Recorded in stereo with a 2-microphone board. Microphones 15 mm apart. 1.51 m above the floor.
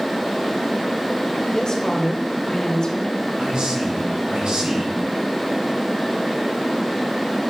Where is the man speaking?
90° right, 1.9 m.